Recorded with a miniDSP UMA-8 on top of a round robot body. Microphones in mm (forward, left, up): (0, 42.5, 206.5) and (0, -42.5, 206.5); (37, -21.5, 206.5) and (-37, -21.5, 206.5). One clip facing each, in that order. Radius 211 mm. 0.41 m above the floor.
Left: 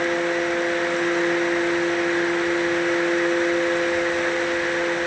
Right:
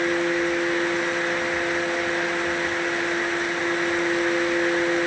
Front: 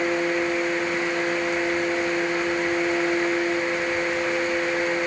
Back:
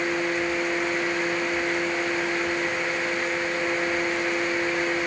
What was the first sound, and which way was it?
Only background noise.